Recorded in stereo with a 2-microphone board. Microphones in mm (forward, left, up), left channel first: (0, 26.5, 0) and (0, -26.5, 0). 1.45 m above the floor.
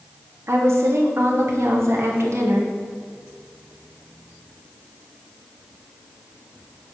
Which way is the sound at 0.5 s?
60° right (ahead or behind).